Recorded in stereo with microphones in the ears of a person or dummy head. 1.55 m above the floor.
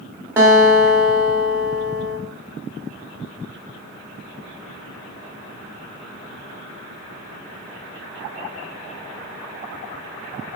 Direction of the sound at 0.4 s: 10° right (ahead or behind).